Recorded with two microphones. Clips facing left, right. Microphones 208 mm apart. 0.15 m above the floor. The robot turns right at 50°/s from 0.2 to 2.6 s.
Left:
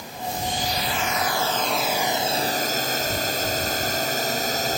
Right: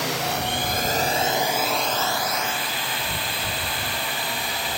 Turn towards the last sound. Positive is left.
turn(degrees=45)